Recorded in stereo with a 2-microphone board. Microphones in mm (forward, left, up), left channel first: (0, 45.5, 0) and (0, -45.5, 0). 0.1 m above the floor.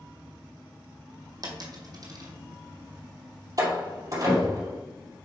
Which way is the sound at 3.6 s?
40° right (ahead or behind).